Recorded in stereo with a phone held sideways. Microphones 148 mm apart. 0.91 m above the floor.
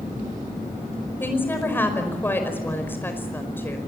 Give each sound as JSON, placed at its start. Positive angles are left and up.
{"t": 1.2, "sound": "a woman speaking", "side_deg": 15, "distance_m": 5.0}